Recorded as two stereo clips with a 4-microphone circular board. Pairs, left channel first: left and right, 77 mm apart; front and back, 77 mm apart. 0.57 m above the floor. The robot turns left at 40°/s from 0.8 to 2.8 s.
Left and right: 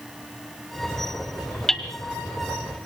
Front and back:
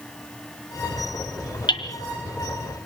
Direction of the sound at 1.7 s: 5° left.